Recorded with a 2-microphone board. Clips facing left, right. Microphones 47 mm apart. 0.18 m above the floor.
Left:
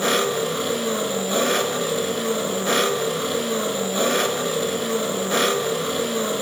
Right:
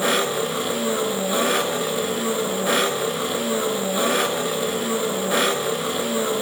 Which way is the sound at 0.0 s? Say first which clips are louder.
Even; 5° right (ahead or behind).